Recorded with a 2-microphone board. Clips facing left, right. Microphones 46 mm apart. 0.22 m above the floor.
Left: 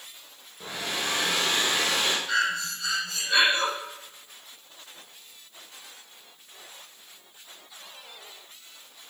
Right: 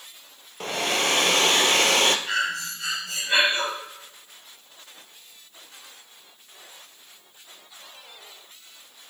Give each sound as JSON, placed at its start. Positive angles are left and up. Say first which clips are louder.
{"t": 0.6, "sound": "a hair dryer", "louder": "right 7 dB", "side_deg": -75, "distance_m": 1.0}
{"t": 2.3, "sound": "breathing", "louder": "even", "side_deg": -70, "distance_m": 6.0}